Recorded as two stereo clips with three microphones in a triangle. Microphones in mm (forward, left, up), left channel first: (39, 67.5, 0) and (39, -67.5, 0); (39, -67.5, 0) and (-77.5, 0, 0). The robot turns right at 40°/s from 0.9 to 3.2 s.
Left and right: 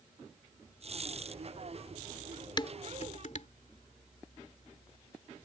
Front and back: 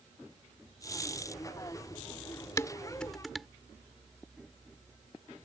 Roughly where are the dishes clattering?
Ahead left.